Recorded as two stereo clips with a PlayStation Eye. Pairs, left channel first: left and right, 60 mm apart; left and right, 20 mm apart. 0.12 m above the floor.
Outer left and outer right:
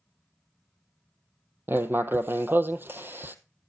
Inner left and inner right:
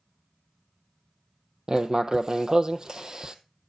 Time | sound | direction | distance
1.7 | writing | 35° right (ahead or behind) | 0.6 m